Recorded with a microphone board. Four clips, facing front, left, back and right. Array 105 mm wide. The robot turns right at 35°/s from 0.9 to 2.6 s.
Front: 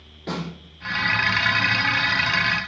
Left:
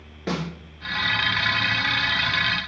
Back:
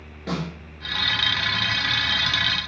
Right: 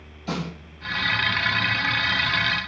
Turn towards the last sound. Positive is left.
turn(degrees=155)